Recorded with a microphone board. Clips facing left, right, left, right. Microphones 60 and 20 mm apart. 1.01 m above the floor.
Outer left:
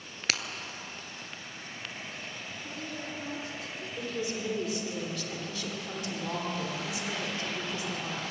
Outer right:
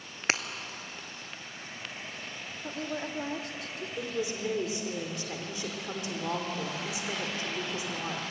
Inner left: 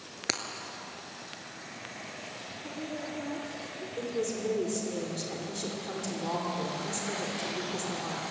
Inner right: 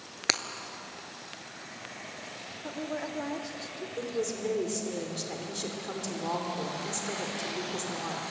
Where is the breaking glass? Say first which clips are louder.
Outer right 3 dB, inner right 5 dB; 30° right (ahead or behind), 1.2 m.